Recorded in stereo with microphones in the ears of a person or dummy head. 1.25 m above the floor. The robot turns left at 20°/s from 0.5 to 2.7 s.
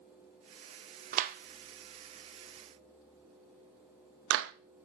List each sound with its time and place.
1.1 s a clap: 45° right (ahead or behind), 0.8 m; by 4.5 s 70° right (ahead or behind), 0.8 m